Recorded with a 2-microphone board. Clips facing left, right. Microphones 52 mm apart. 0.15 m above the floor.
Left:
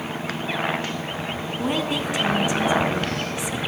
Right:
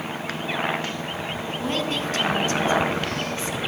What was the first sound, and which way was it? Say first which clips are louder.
A woman speaking: left 2 dB; 15° left (ahead or behind).